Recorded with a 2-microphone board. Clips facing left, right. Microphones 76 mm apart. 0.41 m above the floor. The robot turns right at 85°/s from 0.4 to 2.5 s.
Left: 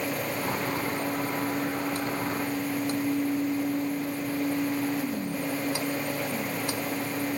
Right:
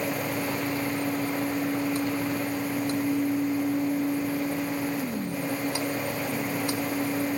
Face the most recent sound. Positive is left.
No sound to turn to.